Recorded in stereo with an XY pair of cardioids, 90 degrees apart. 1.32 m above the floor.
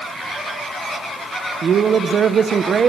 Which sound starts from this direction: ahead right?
A man speaking, at 1.6 s.